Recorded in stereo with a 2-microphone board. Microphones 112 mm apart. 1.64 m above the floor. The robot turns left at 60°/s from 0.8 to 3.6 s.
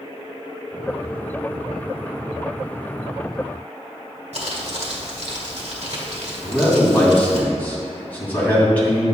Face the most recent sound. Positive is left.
turn(degrees=15)  # may be behind; listen again after turning